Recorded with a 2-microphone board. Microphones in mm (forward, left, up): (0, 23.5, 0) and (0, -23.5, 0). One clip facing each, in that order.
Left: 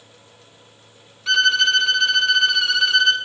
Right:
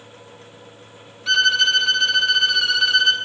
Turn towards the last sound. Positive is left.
turn(degrees=0)  # may be behind; listen again after turning